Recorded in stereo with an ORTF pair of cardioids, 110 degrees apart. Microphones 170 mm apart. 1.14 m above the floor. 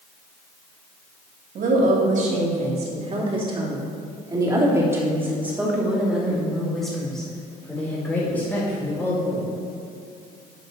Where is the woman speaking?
55° right, 2.5 m; by 9.5 s 15° left, 4 m.